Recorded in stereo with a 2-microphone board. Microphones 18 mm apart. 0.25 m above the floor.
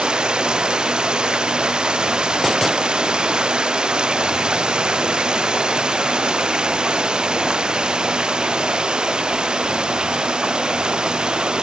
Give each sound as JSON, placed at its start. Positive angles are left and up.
{"t": 0.0, "sound": "running water", "side_deg": -60}